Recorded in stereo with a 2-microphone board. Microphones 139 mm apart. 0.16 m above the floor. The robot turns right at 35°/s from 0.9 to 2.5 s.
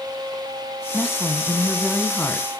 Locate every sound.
0.9 s a woman speaking: 5° right (ahead or behind), 1.2 m; by 2.5 s 15° left (ahead or behind), 1.2 m